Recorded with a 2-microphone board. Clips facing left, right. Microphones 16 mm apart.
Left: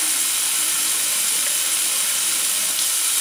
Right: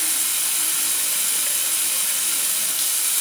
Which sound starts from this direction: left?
Running water, at 0.0 s.